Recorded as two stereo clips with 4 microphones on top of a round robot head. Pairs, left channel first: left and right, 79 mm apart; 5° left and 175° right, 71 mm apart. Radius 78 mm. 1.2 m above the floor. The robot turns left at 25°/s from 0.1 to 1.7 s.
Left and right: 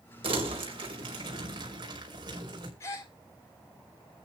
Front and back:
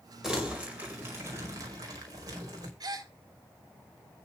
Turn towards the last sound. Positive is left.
turn(degrees=155)